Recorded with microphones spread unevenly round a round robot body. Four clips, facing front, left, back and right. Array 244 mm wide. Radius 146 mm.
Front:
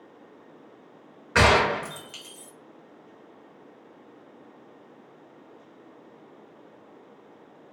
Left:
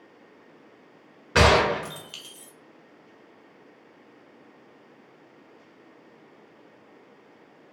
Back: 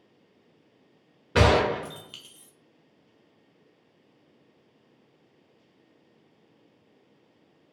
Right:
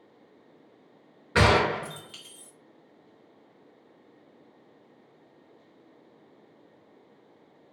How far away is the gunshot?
About 0.7 m.